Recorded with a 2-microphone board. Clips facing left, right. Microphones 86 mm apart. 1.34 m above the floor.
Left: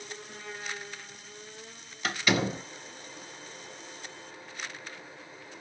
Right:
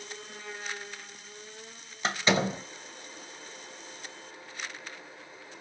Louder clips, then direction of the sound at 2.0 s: Right 1 dB; 30° right (ahead or behind).